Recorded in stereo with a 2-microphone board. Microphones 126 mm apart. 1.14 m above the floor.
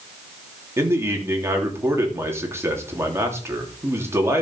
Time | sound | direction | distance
0.8 | a man speaking | 20° right (ahead or behind) | 3 m